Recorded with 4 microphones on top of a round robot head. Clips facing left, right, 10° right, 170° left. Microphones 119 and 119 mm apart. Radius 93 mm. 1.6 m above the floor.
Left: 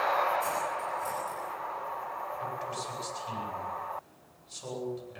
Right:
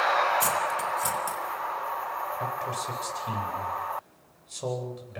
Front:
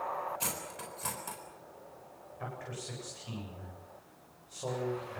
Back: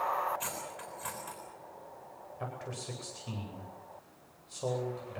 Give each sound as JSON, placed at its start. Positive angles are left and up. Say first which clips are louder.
{"t": 0.4, "sound": "cutlery clinking", "louder": "right 4 dB, even", "azimuth_deg": -75, "distance_m": 4.0}
{"t": 2.4, "sound": "a man speaking", "louder": "right 4 dB, back 1 dB", "azimuth_deg": -120, "distance_m": 9.5}